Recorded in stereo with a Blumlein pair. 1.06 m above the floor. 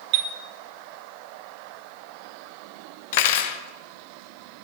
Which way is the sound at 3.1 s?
50° left.